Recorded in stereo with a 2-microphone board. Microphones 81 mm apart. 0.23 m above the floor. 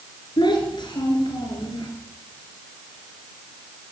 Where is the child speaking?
70° left (ahead or behind), 2.5 m.